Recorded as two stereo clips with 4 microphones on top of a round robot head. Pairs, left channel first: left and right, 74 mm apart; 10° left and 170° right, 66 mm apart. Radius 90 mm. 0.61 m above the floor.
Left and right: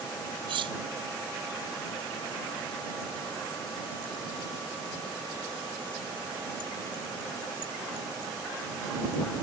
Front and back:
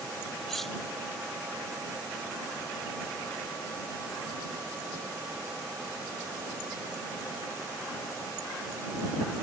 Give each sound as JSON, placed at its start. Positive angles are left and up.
{"t": 0.5, "sound": "cutlery clinking", "azimuth_deg": -75}